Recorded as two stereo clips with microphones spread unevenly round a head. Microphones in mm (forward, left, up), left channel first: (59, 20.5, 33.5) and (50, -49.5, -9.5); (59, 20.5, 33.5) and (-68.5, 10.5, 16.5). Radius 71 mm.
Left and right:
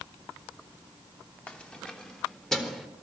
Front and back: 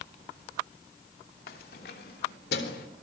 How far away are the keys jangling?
About 3 m.